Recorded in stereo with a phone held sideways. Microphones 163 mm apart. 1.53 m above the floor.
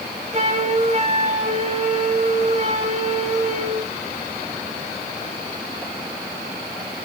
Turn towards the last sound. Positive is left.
turn(degrees=-40)  # may be behind; listen again after turning